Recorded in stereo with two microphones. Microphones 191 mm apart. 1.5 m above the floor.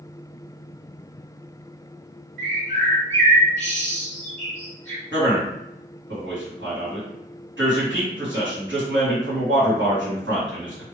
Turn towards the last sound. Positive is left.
turn(degrees=-80)